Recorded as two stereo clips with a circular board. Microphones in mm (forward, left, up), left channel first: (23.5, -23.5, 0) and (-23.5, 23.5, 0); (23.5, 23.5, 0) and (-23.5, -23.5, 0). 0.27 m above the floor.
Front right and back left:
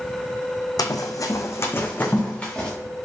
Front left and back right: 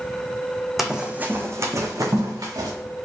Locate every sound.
0.8 s running footsteps: 50° right, 0.7 m; by 2.7 s 120° right, 1.3 m